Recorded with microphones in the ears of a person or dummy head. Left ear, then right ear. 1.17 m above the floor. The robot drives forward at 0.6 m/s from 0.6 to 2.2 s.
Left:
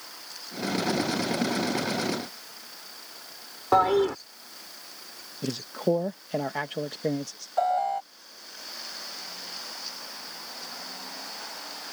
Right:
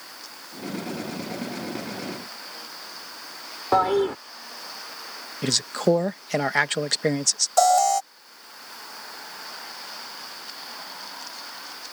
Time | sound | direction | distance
3.7 | a toilet flushing | 5° right (ahead or behind) | ?
5.4 | a man speaking | 60° right (ahead or behind) | ?
7.6 | an alarm | 85° right | ?